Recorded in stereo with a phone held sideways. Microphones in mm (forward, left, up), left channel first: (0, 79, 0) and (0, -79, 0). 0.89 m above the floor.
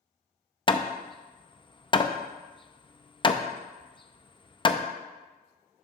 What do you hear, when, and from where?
0.7 s hammering: 30° left (ahead or behind), 0.5 m